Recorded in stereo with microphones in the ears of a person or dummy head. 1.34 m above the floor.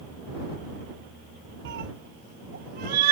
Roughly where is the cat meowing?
Right.